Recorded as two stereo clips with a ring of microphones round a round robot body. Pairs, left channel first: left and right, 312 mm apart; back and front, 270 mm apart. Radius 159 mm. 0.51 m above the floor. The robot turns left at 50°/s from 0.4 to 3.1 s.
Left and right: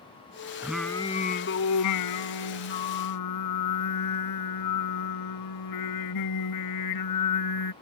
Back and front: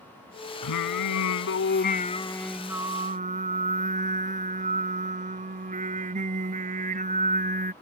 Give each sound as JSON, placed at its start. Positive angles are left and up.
{"t": 0.6, "sound": "singing", "azimuth_deg": -175}